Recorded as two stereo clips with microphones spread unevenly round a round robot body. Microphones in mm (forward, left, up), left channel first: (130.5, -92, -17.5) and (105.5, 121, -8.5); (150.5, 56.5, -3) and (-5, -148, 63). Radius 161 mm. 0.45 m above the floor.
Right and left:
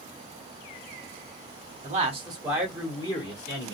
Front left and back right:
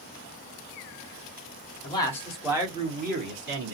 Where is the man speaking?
75° left, 1.1 m; by 3.7 s 110° right, 1.2 m.